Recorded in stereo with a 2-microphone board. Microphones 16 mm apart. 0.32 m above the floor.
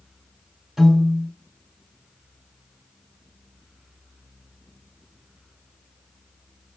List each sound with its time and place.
0.8 s a piano: 25° right (ahead or behind), 1.7 m